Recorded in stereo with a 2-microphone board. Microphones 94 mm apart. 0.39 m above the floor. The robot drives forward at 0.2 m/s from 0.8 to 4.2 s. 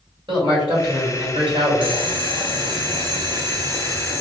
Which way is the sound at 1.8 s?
60° right (ahead or behind).